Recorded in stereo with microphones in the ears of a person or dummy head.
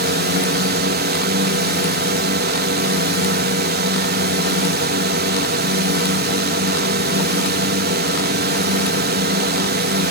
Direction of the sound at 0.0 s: 45° right (ahead or behind).